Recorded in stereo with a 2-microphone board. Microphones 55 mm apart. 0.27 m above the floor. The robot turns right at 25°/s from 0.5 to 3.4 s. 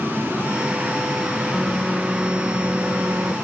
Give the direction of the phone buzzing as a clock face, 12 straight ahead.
6 o'clock.